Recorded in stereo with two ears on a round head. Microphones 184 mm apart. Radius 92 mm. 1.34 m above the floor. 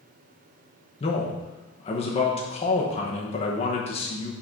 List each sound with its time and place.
1.0 s a man speaking: 30° left (ahead or behind), 1.0 m